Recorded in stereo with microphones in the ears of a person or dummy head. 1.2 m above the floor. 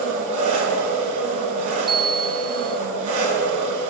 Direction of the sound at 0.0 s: 45° right (ahead or behind).